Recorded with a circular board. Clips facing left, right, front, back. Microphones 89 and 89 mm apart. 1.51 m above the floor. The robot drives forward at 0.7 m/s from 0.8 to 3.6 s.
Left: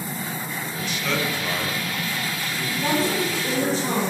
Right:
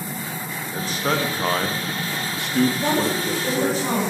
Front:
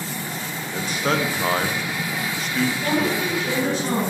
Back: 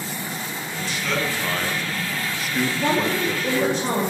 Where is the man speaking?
35° right, 1.4 m; by 3.8 s 135° right, 1.2 m.